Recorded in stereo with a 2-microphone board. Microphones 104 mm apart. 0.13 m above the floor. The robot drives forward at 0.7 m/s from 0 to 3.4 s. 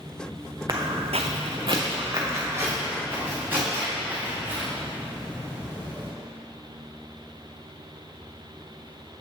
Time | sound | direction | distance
0.7 | footsteps | 40° right (ahead or behind) | 0.9 m